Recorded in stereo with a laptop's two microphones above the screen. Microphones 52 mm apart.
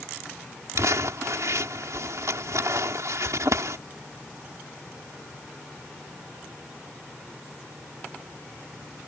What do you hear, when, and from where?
0.8 s crumpling: 80° right